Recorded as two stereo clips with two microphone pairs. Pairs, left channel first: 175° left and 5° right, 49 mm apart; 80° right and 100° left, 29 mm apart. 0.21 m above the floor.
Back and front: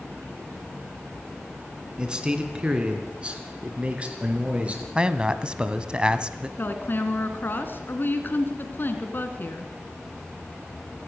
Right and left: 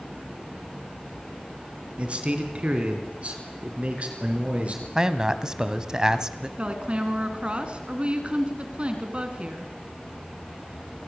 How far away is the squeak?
No squeak in this recording.